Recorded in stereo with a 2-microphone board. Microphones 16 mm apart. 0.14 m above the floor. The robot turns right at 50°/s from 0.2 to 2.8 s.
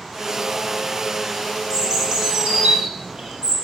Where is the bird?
160° right, 1.7 m; by 3.5 s 105° right, 1.7 m.